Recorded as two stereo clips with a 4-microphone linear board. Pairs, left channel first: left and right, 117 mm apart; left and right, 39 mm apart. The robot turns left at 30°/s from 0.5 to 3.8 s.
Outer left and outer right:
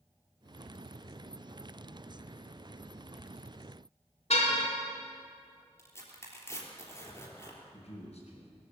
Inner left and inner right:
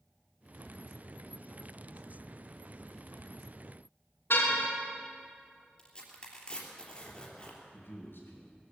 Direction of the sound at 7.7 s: 60° left (ahead or behind).